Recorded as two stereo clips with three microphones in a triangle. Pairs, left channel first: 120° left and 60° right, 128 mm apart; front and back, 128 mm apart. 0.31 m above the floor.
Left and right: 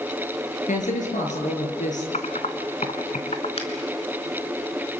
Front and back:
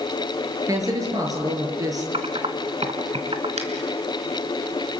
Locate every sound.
0.7 s a man speaking: 120° left, 5 m
2.1 s typing on a keyboard: 145° left, 1.7 m
3.6 s a finger snap: 155° left, 4 m